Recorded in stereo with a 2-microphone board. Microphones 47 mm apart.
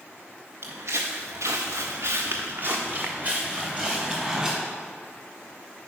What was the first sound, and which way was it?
Footsteps, 55° right (ahead or behind).